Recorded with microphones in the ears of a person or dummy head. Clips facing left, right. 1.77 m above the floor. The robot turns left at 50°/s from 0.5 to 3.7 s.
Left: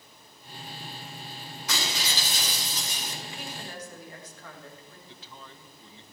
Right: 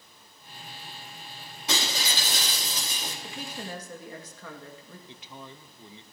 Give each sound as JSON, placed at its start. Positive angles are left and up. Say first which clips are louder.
{"t": 1.7, "sound": "breaking glass", "louder": "right 2 dB", "azimuth_deg": -25, "distance_m": 3.5}
{"t": 3.2, "sound": "a woman speaking", "louder": "right 2 dB", "side_deg": -60, "distance_m": 2.0}
{"t": 5.1, "sound": "a man speaking", "louder": "right 4 dB", "side_deg": -15, "distance_m": 0.8}